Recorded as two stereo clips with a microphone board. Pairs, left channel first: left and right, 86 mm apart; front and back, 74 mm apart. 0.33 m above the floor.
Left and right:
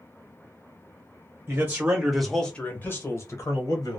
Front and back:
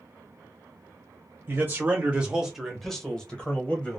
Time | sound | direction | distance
1.5 | a man speaking | 135° right | 1.0 m